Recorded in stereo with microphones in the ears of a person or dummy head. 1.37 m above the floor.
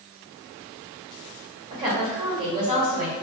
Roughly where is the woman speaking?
Right.